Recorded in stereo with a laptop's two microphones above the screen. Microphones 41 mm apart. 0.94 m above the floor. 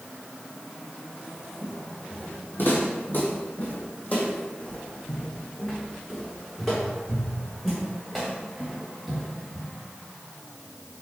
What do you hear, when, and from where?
1.6 s footsteps: 50° left (ahead or behind), 1.7 m; by 9.7 s 5° left (ahead or behind), 4 m